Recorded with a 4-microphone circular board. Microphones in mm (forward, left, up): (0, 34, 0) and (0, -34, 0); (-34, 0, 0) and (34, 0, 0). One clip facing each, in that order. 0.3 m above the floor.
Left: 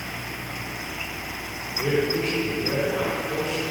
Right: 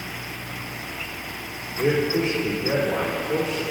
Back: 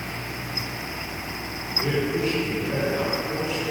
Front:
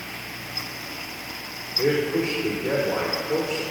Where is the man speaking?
45° right, 4.5 m.